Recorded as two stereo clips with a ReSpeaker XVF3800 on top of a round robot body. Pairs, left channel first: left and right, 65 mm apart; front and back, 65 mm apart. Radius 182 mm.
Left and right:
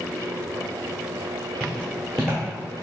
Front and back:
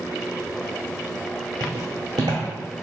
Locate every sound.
1.6 s footsteps: 175° left, 0.6 m